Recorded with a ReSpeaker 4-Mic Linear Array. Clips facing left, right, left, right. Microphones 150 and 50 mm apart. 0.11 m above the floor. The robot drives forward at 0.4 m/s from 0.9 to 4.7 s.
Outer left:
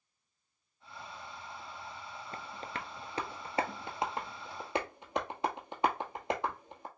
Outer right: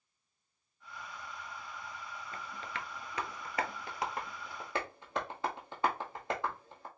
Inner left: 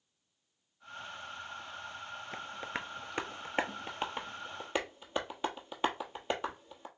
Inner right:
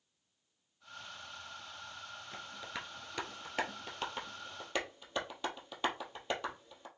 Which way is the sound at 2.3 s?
40° left (ahead or behind).